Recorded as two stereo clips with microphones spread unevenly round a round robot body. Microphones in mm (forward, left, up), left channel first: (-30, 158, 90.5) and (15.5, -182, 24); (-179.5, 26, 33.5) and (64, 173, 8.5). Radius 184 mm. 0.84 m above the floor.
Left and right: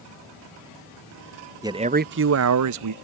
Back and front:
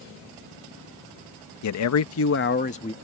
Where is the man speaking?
150° right; by 2.9 s 70° right.